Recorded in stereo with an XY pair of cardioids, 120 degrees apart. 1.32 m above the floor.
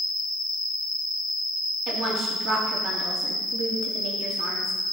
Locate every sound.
0.0 s an insect: straight ahead, 3.5 m
1.9 s a woman speaking: 50° right, 3.5 m